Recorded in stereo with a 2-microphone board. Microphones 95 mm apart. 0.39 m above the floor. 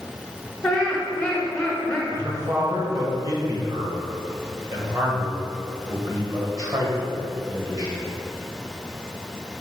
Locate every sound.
0.6 s laughter: 15° left (ahead or behind), 1.2 m
2.1 s a man speaking: 40° right (ahead or behind), 1.8 m